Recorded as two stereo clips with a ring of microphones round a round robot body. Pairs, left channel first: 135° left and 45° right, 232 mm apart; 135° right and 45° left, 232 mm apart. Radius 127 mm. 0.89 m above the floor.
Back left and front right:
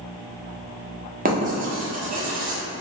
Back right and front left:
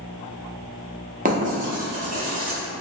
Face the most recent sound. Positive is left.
turn(degrees=0)